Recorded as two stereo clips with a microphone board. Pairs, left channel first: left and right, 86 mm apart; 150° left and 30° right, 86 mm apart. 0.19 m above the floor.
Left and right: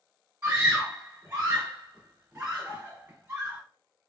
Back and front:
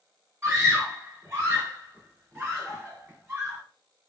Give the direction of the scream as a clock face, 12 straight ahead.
2 o'clock.